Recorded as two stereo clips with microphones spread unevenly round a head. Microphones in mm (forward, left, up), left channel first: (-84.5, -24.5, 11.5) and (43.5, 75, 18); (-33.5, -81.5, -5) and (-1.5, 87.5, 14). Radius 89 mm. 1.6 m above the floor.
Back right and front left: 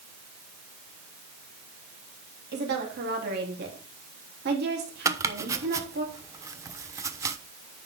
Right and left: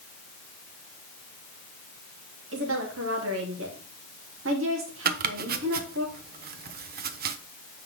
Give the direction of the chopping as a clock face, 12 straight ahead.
8 o'clock.